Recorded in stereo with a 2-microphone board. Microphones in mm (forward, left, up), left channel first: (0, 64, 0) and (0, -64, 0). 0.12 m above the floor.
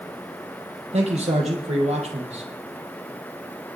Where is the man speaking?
65° right (ahead or behind), 3.5 m.